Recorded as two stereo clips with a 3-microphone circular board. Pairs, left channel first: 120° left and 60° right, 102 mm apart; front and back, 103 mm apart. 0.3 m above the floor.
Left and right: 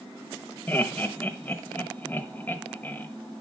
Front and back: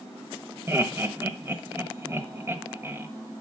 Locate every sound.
0.7 s laughter: 165° left, 1.0 m